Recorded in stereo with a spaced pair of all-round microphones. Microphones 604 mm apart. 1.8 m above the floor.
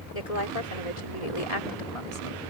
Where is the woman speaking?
80° left; by 2.4 s 55° left (ahead or behind).